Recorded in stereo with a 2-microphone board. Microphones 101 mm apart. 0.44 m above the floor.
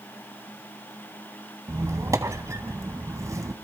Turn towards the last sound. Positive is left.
turn(degrees=-30)  # may be behind; listen again after turning